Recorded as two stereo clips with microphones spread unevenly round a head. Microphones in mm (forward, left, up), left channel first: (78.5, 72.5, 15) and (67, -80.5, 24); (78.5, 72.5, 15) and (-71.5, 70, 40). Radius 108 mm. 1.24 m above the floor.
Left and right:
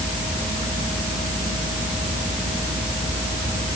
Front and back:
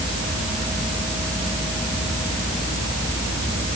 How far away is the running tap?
No running tap in this recording.